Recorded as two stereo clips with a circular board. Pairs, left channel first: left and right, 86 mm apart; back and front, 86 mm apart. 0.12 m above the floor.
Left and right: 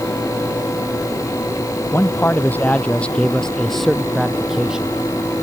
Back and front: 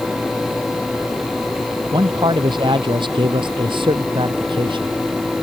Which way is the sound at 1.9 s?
30° left.